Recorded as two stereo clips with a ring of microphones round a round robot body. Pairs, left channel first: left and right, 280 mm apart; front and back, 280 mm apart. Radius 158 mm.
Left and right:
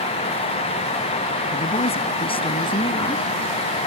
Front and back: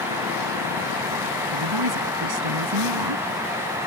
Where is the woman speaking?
160° left; by 3.4 s 165° left.